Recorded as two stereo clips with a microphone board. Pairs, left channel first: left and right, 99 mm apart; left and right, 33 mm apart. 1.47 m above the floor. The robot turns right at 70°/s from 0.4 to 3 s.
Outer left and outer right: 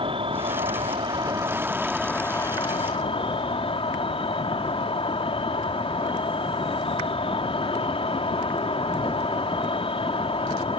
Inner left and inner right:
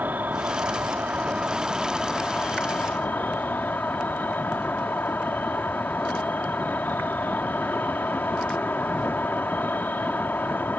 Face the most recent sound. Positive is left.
turn(degrees=75)